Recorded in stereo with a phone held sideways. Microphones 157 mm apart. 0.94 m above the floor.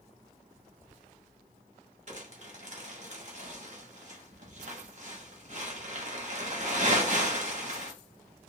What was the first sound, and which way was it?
Whispering, 10° right (ahead or behind).